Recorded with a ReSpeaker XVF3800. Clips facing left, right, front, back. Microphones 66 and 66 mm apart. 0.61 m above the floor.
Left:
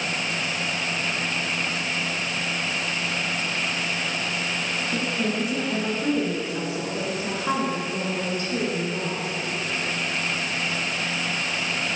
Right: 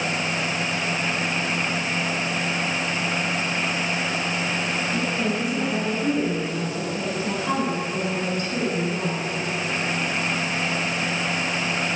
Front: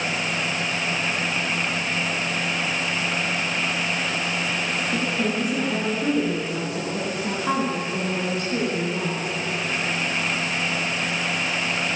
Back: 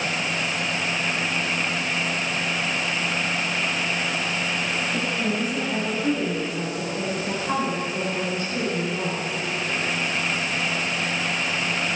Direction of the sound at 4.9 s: 25° left.